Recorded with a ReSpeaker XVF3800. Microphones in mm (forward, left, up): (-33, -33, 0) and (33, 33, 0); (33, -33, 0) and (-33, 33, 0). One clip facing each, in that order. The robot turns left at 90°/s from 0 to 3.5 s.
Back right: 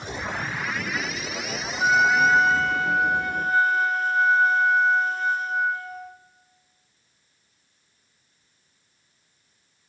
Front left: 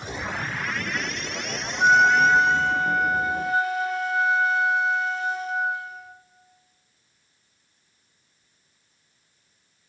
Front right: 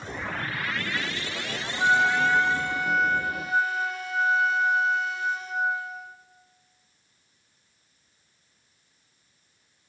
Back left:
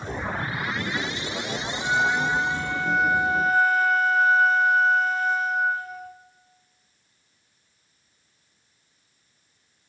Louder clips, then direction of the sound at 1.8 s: Front left 2 dB, front right 2 dB; 25° right.